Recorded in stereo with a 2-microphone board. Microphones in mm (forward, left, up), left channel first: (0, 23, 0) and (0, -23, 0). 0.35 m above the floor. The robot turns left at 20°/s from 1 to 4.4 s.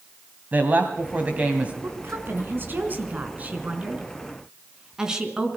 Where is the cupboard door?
I don't hear a cupboard door.